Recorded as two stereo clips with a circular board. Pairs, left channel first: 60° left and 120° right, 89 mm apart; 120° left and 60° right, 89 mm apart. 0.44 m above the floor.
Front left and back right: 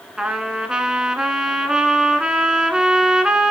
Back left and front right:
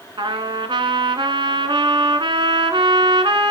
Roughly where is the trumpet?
Ahead right.